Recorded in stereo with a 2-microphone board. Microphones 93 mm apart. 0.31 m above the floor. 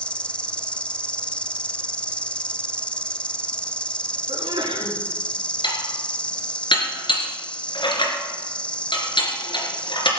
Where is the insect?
10° left (ahead or behind), 0.7 m.